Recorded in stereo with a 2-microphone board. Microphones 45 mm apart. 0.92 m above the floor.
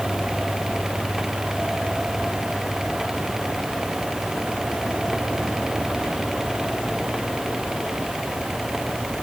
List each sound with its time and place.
Only background noise.